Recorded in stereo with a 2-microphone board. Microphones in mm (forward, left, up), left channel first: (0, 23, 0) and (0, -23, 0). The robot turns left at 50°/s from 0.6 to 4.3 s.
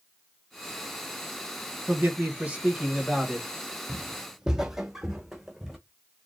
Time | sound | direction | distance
1.9 | a man speaking | 105° right | 1.2 m
3.9 | footsteps | 45° right (ahead or behind) | 0.6 m